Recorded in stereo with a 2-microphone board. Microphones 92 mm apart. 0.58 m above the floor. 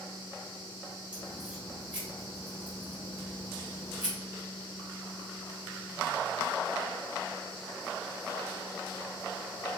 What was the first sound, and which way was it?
A crack, 15° right (ahead or behind).